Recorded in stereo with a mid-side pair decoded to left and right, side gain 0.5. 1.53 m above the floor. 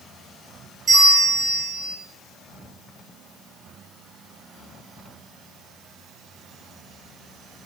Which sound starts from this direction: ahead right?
A bell, at 0.9 s.